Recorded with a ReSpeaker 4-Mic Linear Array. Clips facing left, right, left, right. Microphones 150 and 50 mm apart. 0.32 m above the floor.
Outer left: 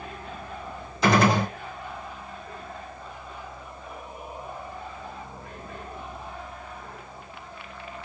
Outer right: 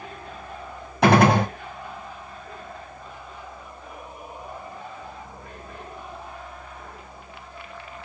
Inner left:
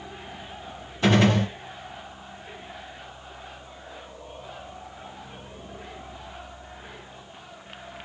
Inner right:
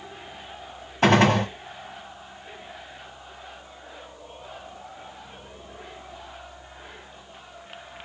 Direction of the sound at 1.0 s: 65° right (ahead or behind).